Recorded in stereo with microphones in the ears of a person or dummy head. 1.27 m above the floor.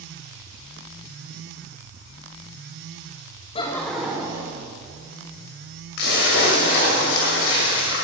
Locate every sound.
3.5 s laughter: 20° left (ahead or behind), 0.5 m; by 4.6 s 25° right (ahead or behind), 1.5 m
6.0 s a splash: 65° left (ahead or behind), 2.5 m